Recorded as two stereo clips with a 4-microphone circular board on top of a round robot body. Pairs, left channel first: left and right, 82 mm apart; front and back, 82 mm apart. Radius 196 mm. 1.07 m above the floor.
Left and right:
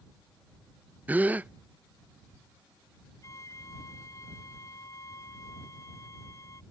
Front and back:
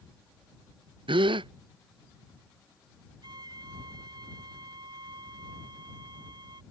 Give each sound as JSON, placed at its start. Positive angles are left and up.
{"t": 1.1, "sound": "a gasp", "azimuth_deg": -160}
{"t": 3.2, "sound": "a violin", "azimuth_deg": 145}